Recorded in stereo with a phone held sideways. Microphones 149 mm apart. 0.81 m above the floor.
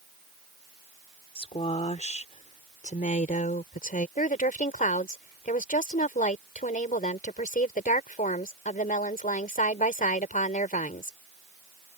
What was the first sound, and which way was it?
A woman speaking, 45° left (ahead or behind).